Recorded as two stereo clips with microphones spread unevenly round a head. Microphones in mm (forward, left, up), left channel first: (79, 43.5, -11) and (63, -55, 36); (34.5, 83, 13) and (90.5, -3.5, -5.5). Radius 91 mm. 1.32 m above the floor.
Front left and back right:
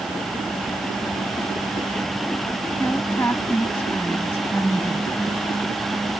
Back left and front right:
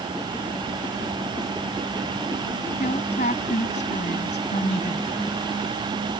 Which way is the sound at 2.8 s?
165° left.